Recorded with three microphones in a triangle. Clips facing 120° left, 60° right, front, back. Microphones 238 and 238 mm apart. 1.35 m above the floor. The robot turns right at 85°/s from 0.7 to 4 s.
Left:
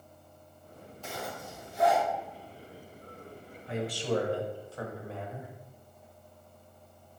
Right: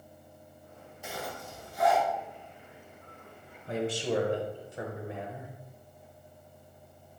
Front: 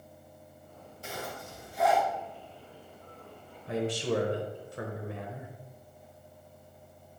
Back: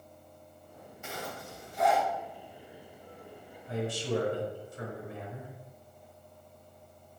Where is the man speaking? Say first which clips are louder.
Right 1 dB, front 2 dB; 15° right, 1.0 m; by 5.5 s 15° left, 1.0 m.